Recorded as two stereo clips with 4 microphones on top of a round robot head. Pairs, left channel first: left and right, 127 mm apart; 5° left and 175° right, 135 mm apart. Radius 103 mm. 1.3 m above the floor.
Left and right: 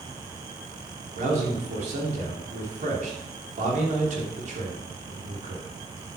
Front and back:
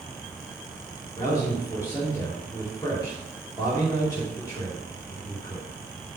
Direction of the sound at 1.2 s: 70° right.